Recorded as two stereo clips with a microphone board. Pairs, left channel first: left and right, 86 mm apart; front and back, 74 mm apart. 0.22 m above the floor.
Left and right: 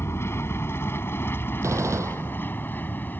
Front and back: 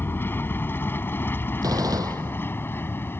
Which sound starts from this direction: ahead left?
An aircraft, at 0.0 s.